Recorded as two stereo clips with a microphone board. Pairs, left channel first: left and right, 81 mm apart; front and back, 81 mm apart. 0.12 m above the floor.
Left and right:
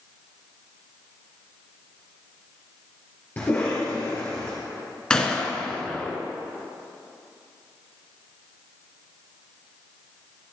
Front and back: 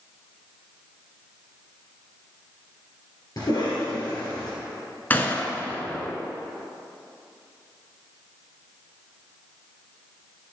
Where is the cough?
30° left, 2 m.